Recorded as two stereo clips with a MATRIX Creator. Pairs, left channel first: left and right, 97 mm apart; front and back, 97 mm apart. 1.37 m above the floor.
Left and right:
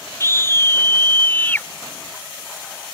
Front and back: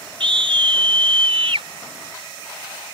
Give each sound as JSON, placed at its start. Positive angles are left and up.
{"t": 0.2, "sound": "a scream", "azimuth_deg": 150}